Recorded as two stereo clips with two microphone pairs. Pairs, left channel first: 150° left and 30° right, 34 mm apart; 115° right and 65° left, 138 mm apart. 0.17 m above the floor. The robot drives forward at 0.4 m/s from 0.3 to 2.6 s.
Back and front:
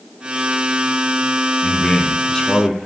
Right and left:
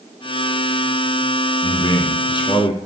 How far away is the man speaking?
About 1.2 m.